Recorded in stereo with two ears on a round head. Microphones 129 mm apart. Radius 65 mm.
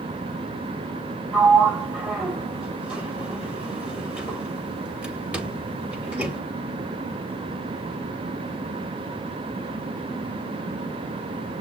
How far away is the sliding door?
About 1.1 m.